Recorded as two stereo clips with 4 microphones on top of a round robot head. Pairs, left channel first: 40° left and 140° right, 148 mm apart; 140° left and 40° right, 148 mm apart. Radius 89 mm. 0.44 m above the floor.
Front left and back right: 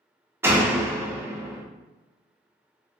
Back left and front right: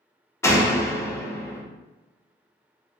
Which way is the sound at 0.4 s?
Straight behind.